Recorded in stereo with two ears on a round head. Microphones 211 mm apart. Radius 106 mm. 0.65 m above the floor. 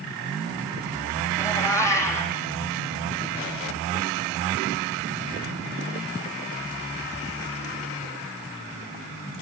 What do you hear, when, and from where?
1.4 s a cat meowing: 10° left (ahead or behind), 3.5 m